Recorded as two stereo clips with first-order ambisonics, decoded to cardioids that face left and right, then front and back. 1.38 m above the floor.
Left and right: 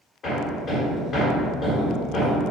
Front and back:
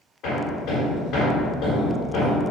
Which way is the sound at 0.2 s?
45° left.